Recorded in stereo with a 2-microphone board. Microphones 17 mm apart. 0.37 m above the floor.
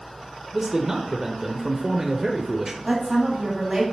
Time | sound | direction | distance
0.5 | a man speaking | 30° right (ahead or behind) | 0.9 m
2.9 | a woman speaking | 40° right (ahead or behind) | 2 m